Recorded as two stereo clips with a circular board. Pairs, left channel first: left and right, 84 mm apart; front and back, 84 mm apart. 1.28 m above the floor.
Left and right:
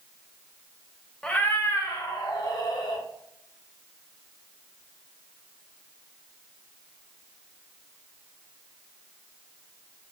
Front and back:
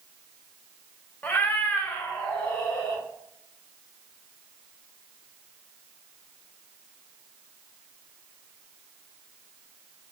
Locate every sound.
1.2 s a cat meowing: 30° left, 0.5 m; by 3.0 s 75° left, 1.4 m